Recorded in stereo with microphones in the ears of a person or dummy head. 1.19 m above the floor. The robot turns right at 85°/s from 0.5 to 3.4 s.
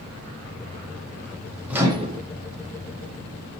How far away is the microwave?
About 0.5 m.